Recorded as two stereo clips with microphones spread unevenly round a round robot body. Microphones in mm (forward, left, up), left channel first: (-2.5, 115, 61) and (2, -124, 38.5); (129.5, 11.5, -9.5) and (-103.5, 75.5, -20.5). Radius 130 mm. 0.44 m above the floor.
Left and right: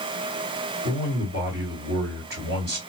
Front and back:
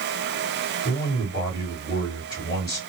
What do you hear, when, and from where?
0.8 s a man speaking: 90° right, 2 m